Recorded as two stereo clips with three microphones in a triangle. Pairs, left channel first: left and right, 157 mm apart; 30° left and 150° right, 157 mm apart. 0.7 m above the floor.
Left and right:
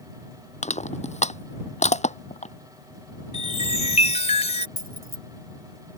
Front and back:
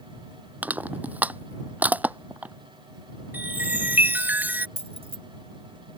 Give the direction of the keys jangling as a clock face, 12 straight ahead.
3 o'clock.